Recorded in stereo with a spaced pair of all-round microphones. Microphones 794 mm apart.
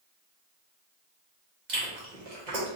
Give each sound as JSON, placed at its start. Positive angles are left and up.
{"t": 1.7, "sound": "chewing", "side_deg": -65, "distance_m": 1.2}